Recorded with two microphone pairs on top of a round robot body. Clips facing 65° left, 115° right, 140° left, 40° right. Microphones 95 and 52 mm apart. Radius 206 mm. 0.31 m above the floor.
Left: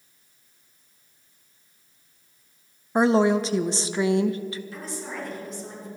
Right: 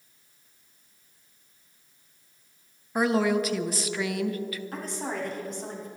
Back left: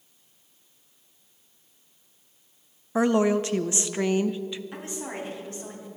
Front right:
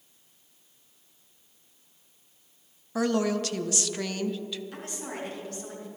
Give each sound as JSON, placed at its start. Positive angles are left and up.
{"t": 3.0, "sound": "a woman speaking", "azimuth_deg": 90, "distance_m": 0.9}
{"t": 4.7, "sound": "a woman speaking", "azimuth_deg": -150, "distance_m": 4.5}